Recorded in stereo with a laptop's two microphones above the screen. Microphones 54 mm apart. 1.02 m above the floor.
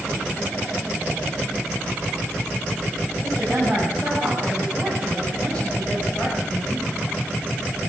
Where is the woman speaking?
Centre (ahead or behind), 6.5 m; by 6.9 s 30° left (ahead or behind), 5 m.